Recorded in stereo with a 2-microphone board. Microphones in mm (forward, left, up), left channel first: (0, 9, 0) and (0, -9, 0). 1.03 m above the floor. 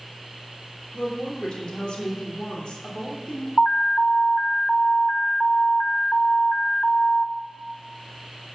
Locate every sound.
0.9 s a woman speaking: 75° left (ahead or behind), 3 m
3.6 s an alarm: 60° left (ahead or behind), 1.4 m